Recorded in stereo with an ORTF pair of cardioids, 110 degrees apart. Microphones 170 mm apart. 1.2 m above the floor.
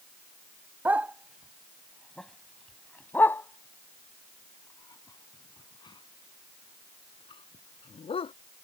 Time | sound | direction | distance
0.8 | a dog barking | 10° right | ?